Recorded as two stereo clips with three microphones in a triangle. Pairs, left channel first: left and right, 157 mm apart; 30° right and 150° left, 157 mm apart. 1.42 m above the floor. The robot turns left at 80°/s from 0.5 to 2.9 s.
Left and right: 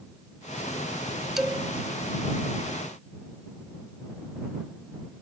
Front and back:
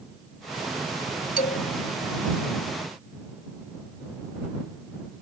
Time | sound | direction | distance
1.4 | a man speaking | straight ahead | ?